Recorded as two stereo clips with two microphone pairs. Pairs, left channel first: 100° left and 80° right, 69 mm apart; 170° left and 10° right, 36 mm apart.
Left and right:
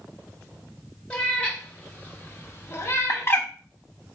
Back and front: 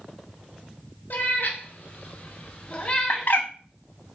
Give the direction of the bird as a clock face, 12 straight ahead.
7 o'clock.